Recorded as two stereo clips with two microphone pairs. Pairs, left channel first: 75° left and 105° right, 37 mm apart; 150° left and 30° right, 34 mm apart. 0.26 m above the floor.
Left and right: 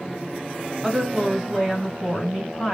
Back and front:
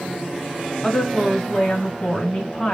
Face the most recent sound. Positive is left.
turn(degrees=-170)